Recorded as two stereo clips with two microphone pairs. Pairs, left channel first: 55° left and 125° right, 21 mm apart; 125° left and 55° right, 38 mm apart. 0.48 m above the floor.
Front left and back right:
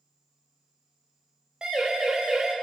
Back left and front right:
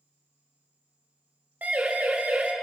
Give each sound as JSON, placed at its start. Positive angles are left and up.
{"t": 1.6, "sound": "a siren", "azimuth_deg": -85, "distance_m": 2.5}